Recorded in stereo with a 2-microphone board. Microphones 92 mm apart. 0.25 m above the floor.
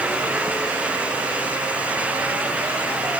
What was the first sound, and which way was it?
Only background noise.